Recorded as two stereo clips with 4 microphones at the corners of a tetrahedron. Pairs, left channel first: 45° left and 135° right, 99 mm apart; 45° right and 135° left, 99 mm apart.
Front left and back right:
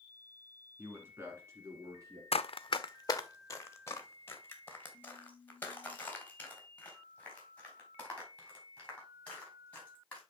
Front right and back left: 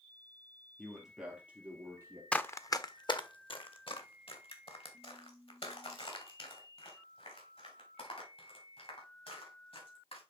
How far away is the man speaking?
About 1.5 m.